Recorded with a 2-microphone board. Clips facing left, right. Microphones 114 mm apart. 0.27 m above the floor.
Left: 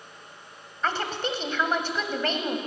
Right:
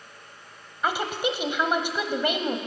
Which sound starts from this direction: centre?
A woman speaking, at 0.8 s.